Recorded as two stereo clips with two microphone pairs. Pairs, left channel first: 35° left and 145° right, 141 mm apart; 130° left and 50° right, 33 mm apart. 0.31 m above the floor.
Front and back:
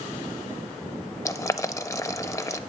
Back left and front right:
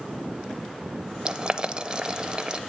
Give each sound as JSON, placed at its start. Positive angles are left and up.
{"t": 1.2, "sound": "boiling", "azimuth_deg": -10, "distance_m": 0.5}